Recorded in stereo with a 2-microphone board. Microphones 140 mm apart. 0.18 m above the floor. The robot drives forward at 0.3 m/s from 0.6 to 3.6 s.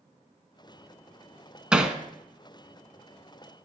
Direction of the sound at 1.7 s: 5° right (ahead or behind).